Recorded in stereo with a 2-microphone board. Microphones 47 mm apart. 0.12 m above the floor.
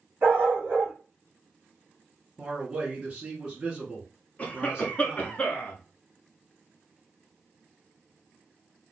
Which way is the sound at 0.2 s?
45° right (ahead or behind).